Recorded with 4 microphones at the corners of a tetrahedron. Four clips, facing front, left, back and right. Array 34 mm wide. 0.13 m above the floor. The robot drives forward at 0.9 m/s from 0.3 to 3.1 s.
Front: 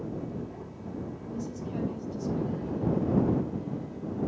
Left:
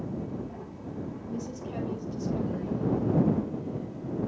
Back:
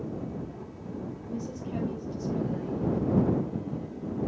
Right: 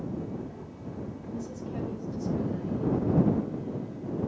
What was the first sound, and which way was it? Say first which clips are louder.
A woman speaking: left 1 dB, back 1 dB; 120° left.